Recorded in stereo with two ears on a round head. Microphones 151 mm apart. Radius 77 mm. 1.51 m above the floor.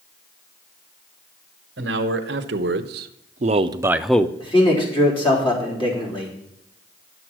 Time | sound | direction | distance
1.8 | a man speaking | 80° right | 1.2 m
4.4 | a man speaking | 30° left (ahead or behind) | 3.5 m